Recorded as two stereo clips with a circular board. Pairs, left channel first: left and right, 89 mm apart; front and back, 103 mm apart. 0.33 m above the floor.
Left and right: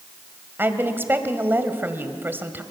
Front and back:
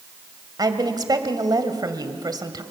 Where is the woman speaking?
145° right, 2.0 m.